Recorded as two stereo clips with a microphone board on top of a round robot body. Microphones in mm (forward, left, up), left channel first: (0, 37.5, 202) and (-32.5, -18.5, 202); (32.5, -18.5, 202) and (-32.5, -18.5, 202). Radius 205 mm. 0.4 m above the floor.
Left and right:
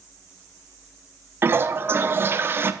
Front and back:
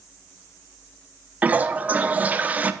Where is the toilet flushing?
130° right, 0.7 m.